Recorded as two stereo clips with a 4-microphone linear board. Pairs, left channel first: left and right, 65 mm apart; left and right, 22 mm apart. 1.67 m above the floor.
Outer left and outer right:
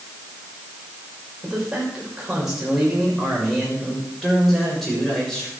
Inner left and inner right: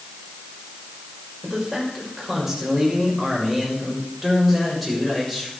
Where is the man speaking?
15° right (ahead or behind), 6 m; by 5.5 s 5° left (ahead or behind), 7 m.